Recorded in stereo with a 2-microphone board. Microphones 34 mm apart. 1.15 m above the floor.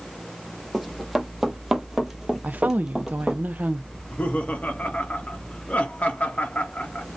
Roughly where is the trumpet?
No trumpet in this recording.